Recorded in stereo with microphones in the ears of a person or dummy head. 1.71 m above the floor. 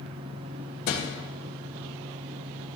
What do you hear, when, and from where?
0.9 s a thud: 60° left (ahead or behind), 2.5 m